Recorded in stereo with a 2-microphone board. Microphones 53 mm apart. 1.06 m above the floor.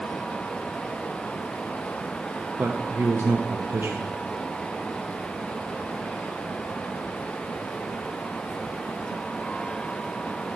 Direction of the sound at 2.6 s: 60° right (ahead or behind).